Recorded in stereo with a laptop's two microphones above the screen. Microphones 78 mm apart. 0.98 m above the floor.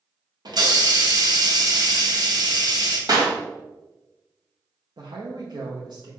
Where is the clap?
55° right (ahead or behind), 1.5 m.